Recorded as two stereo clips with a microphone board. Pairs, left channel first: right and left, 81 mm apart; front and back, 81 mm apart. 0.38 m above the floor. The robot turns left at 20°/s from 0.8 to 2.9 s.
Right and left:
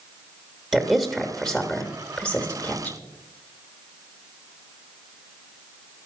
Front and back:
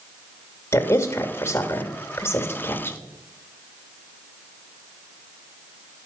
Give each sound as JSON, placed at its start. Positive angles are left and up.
{"t": 0.7, "sound": "a woman speaking", "azimuth_deg": 10, "distance_m": 0.9}